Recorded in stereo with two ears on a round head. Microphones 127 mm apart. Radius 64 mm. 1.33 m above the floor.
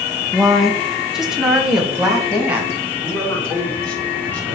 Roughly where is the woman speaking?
Centre.